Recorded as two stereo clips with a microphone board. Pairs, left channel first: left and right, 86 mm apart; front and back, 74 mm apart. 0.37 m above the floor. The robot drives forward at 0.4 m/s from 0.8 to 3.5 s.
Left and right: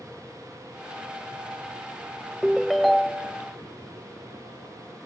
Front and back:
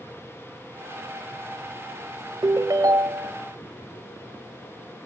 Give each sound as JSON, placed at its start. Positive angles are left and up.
{"t": 2.4, "sound": "a ringtone", "azimuth_deg": 180, "distance_m": 0.5}